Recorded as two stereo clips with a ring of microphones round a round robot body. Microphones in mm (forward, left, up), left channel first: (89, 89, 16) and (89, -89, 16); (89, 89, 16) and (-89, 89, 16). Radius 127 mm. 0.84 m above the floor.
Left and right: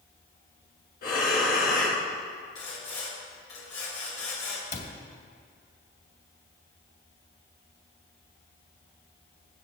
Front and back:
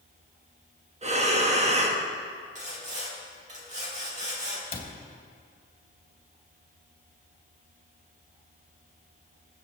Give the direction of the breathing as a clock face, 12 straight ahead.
8 o'clock.